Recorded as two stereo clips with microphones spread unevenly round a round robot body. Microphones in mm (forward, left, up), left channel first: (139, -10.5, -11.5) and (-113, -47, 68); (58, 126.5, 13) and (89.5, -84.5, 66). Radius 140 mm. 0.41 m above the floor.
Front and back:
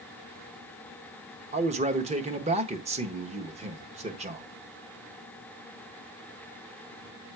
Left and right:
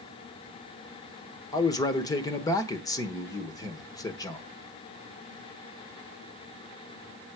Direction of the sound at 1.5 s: 115° left.